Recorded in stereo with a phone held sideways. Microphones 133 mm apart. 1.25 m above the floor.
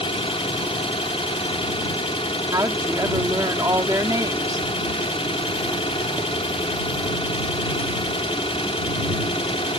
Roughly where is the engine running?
Left.